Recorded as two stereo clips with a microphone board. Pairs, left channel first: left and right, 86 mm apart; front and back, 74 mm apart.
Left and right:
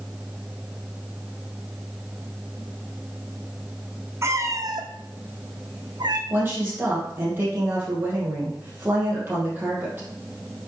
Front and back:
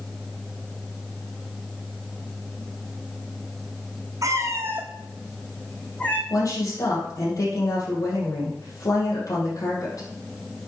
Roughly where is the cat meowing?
Behind right.